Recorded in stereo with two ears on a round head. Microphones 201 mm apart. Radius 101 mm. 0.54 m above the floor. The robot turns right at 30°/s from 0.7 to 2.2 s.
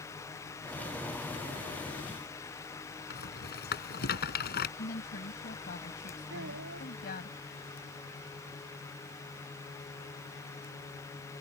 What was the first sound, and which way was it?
A rattle, 50° left (ahead or behind).